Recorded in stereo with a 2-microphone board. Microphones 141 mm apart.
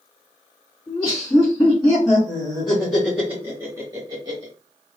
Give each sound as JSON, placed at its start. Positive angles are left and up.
{"t": 0.9, "sound": "laughter", "side_deg": 15, "distance_m": 1.9}